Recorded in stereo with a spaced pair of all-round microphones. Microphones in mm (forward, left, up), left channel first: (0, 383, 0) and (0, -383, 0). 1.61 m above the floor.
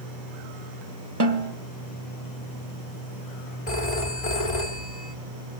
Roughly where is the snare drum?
Right.